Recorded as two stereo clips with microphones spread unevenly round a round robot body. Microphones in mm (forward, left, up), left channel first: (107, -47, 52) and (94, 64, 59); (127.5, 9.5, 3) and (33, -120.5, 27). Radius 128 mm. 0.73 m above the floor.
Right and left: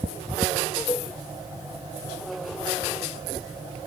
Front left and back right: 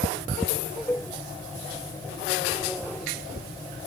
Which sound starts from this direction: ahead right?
A cowbell, at 0.9 s.